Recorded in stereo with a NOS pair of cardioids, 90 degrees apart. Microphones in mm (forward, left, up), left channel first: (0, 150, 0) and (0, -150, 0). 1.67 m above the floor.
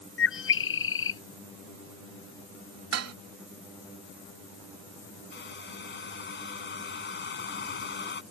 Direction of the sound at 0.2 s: 45° left.